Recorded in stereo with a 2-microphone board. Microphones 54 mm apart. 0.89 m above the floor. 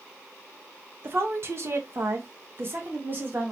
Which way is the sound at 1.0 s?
45° right (ahead or behind).